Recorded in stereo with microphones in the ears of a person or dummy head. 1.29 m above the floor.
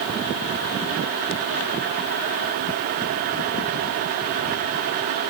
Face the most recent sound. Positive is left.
No sound to turn to.